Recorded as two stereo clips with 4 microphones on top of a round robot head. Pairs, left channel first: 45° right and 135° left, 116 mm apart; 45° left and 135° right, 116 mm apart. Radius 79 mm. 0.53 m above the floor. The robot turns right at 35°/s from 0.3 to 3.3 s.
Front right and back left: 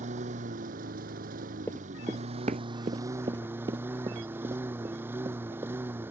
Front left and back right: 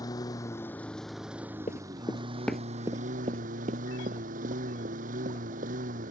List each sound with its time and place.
0.0 s a lawn mower: 105° left; by 6.1 s 150° right
1.7 s running footsteps: 25° left; by 5.8 s 155° right